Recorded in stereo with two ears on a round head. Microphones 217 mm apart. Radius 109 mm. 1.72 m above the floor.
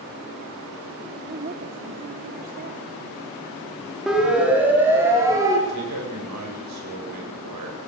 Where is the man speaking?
80° right, 9 m.